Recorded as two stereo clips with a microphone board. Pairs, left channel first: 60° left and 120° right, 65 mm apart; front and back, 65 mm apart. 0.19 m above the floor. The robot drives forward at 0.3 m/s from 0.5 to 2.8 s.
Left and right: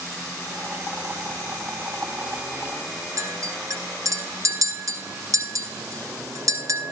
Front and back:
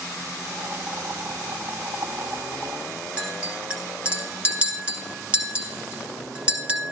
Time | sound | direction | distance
3.2 | a clink | 115° right | 1.3 m